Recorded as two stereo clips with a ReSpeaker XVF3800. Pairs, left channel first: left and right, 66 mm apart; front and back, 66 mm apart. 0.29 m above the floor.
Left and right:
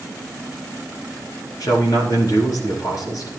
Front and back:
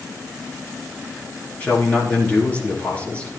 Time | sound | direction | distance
1.6 | a man speaking | 70° left | 4 m